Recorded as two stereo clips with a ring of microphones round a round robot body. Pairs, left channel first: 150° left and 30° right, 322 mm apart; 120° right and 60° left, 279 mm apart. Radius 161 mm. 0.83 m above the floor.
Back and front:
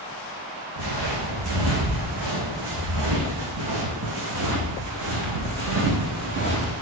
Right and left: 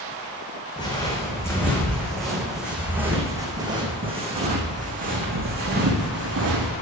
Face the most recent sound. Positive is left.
turn(degrees=20)